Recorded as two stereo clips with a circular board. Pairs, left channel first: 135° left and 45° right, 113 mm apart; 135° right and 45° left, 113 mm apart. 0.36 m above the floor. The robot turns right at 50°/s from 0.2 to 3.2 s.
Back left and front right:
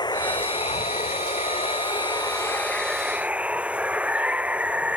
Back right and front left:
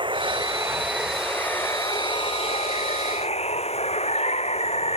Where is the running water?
85° left; by 5.0 s 125° right.